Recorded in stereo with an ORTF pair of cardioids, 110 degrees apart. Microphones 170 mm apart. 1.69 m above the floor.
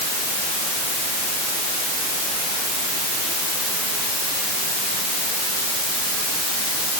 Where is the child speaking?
I don't hear a child speaking.